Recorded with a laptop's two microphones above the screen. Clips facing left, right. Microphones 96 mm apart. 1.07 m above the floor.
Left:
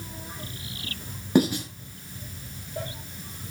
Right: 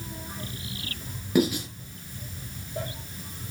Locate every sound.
1.4 s writing: 30° left (ahead or behind), 9 m